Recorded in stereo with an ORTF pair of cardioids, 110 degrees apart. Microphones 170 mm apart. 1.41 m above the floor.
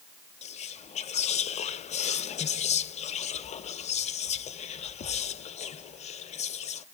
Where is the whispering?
40° left, 0.7 m.